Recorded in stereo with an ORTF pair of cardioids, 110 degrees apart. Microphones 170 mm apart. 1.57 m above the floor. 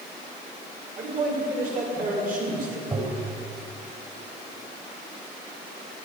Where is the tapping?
25° right, 4 m.